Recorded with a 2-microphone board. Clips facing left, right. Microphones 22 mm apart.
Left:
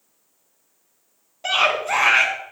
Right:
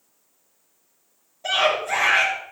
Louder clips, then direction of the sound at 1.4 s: Left 1 dB; 50° left (ahead or behind).